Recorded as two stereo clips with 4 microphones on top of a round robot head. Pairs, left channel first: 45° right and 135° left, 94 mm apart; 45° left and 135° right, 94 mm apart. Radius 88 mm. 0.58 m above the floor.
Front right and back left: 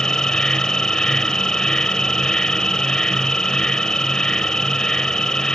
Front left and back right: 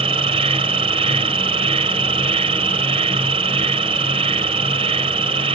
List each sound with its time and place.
0.0 s an insect: 130° right